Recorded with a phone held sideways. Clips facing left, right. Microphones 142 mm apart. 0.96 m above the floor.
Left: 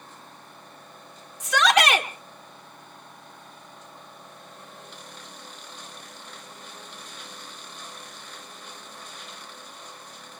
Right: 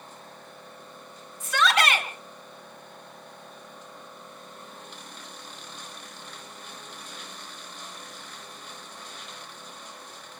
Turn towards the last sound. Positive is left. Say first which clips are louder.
# left 3 dB
turn(degrees=80)